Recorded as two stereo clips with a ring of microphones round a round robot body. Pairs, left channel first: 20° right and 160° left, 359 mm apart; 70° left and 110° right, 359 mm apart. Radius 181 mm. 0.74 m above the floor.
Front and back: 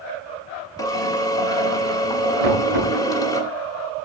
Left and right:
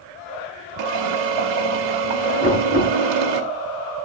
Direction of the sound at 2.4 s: 175° left.